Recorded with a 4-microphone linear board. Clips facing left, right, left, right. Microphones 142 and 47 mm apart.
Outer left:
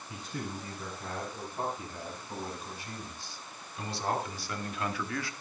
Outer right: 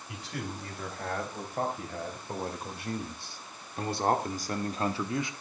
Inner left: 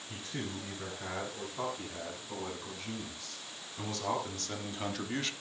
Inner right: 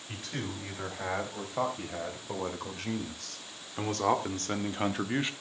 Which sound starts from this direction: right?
A man speaking, at 0.1 s.